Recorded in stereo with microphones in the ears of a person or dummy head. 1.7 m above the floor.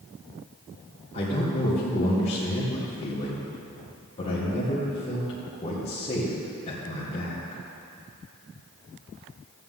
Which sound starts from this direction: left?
A man speaking, at 1.1 s.